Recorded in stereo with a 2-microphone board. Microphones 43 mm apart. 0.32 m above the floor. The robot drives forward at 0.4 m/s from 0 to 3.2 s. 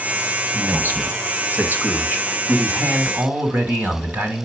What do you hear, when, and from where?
0.5 s a man speaking: 50° right (ahead or behind), 1.6 m